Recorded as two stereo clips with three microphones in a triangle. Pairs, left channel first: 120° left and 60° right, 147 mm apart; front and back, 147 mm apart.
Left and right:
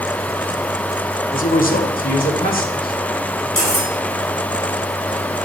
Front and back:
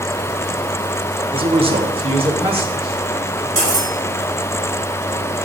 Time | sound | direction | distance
1.3 | a man speaking | 130° left | 0.7 m
3.6 | cutlery clinking | 150° left | 1.2 m